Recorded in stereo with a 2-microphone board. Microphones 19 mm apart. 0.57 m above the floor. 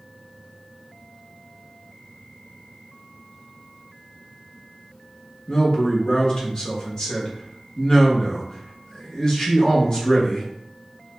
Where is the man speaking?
30° left (ahead or behind), 1.1 m.